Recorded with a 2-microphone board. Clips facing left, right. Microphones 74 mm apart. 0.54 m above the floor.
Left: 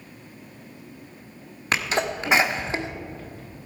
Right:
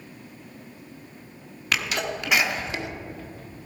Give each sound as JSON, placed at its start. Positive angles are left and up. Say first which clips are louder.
{"t": 1.7, "sound": "a sneeze", "louder": "left 3 dB", "side_deg": 30, "distance_m": 1.2}